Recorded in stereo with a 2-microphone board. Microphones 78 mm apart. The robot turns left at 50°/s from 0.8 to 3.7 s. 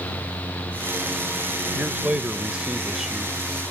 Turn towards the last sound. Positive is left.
turn(degrees=5)  # may be behind; listen again after turning